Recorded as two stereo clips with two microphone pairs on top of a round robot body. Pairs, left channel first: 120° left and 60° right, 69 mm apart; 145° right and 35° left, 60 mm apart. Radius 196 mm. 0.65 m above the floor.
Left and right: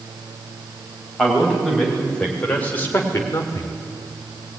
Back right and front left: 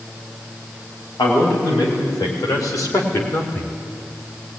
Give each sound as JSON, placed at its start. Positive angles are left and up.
{"t": 1.2, "sound": "a man speaking", "azimuth_deg": -155, "distance_m": 4.5}